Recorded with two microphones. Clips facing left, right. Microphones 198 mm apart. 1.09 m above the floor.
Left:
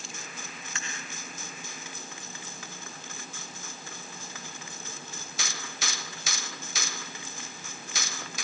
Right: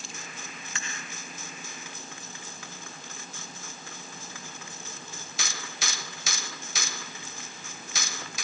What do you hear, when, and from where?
Only background noise.